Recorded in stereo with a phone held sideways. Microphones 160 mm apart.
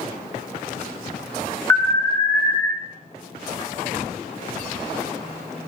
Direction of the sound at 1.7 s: 15° left (ahead or behind).